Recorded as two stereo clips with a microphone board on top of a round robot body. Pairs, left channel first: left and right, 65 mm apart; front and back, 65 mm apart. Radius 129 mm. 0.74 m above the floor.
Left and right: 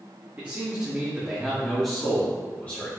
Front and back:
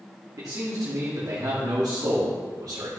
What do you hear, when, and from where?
0.4 s a man speaking: 155° right, 2.0 m; by 2.9 s 155° left, 2 m